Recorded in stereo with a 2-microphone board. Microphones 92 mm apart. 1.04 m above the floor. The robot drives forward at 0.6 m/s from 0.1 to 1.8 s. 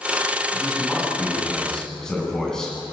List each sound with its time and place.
0.5 s a man speaking: 5° left (ahead or behind), 9 m